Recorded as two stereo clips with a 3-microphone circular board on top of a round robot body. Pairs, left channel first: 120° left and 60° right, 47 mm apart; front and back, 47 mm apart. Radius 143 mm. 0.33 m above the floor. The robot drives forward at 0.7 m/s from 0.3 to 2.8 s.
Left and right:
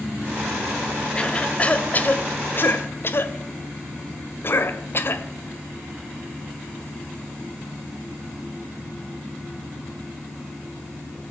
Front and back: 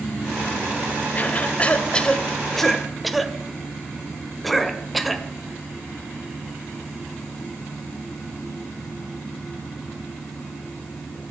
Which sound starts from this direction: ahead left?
A cough, at 1.1 s.